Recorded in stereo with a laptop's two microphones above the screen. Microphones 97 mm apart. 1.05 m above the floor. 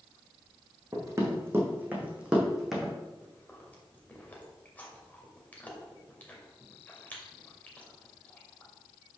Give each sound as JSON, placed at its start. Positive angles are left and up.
{"t": 0.9, "sound": "running footsteps", "side_deg": -35, "distance_m": 2.5}
{"t": 3.2, "sound": "chewing", "side_deg": 15, "distance_m": 2.5}